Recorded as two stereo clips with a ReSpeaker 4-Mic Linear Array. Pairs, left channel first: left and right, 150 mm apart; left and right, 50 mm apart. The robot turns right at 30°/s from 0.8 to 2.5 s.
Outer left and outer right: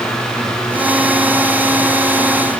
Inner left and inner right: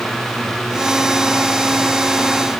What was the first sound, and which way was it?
Only background noise.